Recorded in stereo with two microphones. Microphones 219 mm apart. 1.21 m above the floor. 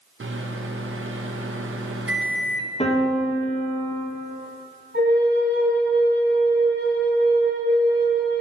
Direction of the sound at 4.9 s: 50° right (ahead or behind).